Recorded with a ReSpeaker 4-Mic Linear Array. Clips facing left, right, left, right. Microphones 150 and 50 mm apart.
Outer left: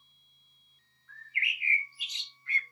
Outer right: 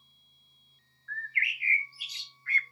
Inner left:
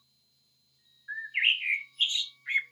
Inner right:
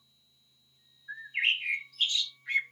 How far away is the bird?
About 0.7 m.